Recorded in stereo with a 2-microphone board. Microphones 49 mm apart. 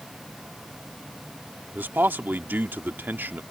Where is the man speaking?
45° right (ahead or behind).